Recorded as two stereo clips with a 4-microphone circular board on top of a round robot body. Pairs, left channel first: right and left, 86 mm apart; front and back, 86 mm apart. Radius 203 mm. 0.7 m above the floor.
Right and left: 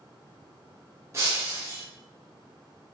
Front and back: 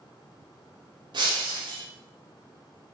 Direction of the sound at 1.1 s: 150° left.